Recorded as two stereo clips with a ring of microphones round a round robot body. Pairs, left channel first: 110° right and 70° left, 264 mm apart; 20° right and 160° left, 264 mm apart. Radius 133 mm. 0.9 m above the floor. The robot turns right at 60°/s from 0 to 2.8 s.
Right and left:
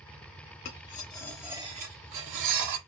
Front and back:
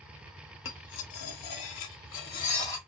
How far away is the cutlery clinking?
About 0.9 m.